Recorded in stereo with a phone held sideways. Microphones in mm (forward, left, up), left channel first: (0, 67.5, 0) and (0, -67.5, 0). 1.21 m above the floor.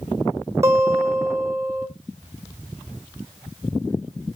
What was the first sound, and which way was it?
A guitar, 25° right (ahead or behind).